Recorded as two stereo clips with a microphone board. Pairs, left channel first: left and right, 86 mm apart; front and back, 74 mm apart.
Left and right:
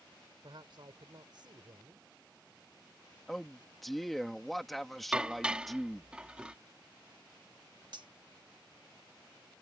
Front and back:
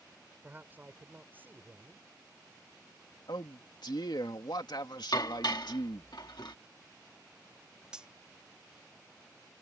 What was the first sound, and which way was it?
A man speaking, 115° right.